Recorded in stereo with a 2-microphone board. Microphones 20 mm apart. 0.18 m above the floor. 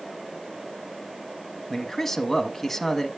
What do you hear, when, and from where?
1.7 s a man speaking: 10° left (ahead or behind), 1.0 m